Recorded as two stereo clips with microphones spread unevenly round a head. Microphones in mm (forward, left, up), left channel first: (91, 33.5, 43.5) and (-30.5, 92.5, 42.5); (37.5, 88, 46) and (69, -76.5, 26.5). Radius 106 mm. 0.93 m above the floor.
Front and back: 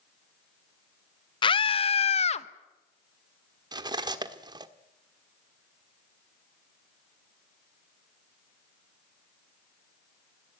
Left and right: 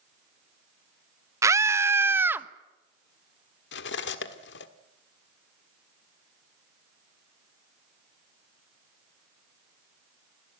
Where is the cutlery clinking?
95° left, 1.5 m.